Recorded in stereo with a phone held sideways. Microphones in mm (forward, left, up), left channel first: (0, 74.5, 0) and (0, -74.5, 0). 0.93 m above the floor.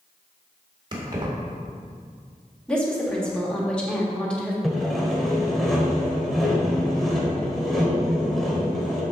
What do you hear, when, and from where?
0.9 s keys jangling: 30° right (ahead or behind), 1.7 m
2.7 s a woman speaking: 5° left (ahead or behind), 1.8 m
4.6 s sawing: centre (ahead or behind), 1.6 m